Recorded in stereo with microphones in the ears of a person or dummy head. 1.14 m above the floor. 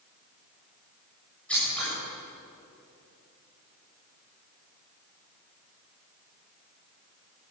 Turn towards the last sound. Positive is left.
turn(degrees=5)  # may be behind; listen again after turning